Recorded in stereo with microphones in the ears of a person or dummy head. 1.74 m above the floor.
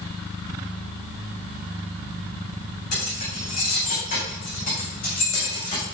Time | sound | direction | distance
2.9 | keys jangling | 50° left (ahead or behind) | 9 m